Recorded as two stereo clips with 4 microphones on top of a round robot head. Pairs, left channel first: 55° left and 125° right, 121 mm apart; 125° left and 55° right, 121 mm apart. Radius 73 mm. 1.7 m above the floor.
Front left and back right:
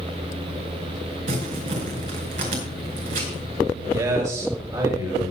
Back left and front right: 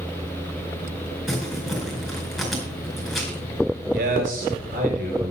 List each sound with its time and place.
1.3 s crumpling: 145° right, 4.5 m
3.9 s a man speaking: 60° right, 5 m